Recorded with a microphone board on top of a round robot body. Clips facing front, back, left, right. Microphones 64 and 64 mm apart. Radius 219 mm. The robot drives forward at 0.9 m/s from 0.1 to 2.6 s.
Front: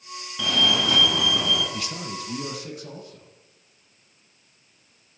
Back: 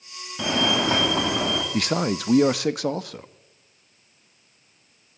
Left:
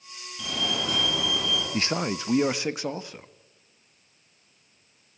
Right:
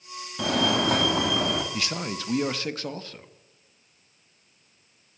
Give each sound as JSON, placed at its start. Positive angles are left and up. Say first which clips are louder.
{"t": 0.4, "sound": "a fire alarm", "louder": "back 1 dB, right 7 dB", "azimuth_deg": -115, "distance_m": 3.5}
{"t": 1.7, "sound": "a man speaking", "louder": "back 9 dB, left 4 dB", "azimuth_deg": 145, "distance_m": 0.7}